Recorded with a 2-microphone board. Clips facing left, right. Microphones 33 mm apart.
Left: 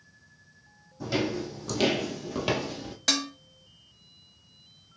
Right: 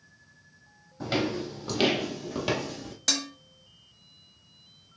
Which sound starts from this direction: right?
Footsteps, at 1.0 s.